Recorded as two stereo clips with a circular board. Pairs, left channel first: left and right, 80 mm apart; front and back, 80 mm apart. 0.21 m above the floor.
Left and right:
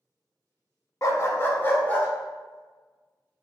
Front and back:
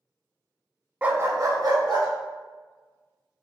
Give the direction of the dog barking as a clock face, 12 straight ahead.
8 o'clock.